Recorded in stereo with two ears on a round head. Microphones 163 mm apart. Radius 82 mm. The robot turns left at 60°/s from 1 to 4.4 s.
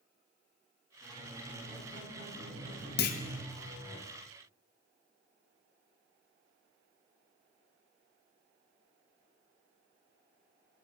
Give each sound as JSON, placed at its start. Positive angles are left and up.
{"t": 1.0, "sound": "a squeak", "azimuth_deg": -20, "distance_m": 3.5}
{"t": 3.0, "sound": "a clunk", "side_deg": 60, "distance_m": 0.6}